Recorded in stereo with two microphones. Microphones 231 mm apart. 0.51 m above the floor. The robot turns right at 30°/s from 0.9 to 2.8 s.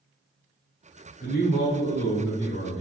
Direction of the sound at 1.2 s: 70° left.